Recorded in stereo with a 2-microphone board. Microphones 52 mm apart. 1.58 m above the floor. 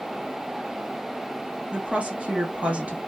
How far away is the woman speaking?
About 1.2 m.